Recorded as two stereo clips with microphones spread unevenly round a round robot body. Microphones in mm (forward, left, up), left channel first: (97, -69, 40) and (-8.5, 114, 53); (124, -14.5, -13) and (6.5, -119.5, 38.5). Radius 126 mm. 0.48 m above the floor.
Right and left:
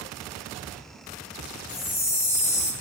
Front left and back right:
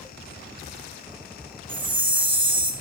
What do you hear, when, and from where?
1.7 s a chime: 140° right, 2.5 m